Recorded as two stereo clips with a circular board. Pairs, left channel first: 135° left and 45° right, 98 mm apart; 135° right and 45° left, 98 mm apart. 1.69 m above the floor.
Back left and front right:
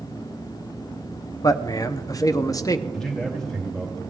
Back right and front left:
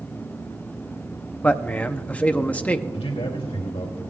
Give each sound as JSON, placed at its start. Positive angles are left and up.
{"t": 1.4, "sound": "a man speaking", "azimuth_deg": 155, "distance_m": 0.6}
{"t": 2.9, "sound": "a man speaking", "azimuth_deg": -140, "distance_m": 3.0}